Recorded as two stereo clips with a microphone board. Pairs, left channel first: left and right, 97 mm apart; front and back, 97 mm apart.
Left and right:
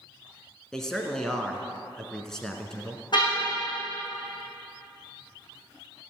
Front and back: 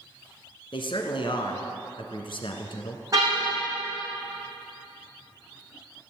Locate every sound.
0.7 s a man speaking: 5° left, 1.9 m
3.1 s a car horn: 125° left, 6.5 m